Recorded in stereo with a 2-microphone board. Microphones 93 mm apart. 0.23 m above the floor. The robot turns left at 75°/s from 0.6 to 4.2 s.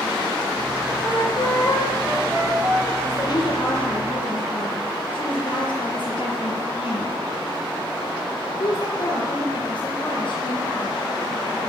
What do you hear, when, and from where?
1.0 s a flute: 85° left, 8.5 m; by 2.9 s 55° right, 8.5 m
3.0 s a woman speaking: 150° left, 4.5 m; by 11.0 s 65° left, 4.5 m